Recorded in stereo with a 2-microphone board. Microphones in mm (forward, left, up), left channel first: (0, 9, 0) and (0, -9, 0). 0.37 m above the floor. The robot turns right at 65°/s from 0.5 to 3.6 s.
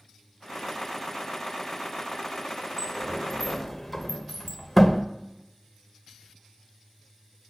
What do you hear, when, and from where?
2.8 s a sliding door: 30° right (ahead or behind), 0.9 m; by 5.0 s centre (ahead or behind), 0.9 m